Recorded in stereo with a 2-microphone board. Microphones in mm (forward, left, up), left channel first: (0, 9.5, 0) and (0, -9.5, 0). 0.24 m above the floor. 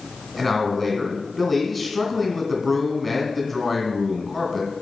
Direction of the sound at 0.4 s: 5° right (ahead or behind).